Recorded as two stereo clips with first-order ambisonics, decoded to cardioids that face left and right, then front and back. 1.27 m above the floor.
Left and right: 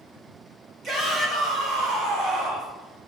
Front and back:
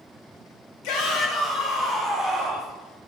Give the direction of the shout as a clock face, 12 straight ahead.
1 o'clock.